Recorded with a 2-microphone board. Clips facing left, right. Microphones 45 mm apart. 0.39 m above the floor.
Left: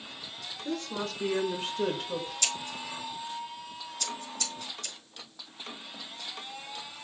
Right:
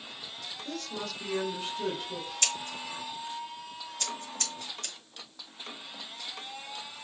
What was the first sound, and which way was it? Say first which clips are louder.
A woman speaking: left 4 dB; 20° left (ahead or behind).